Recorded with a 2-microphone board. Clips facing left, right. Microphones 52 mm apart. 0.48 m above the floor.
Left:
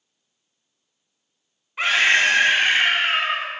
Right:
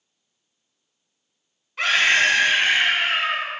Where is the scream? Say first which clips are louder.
Left 1 dB; 15° left (ahead or behind), 3.5 m; by 3.5 s 40° left (ahead or behind), 4.5 m.